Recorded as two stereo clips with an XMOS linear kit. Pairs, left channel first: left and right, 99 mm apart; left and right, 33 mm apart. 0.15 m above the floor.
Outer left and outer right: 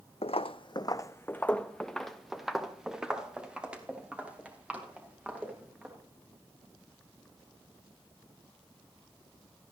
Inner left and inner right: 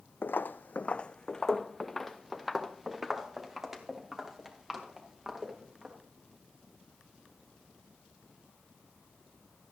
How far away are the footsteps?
About 0.5 m.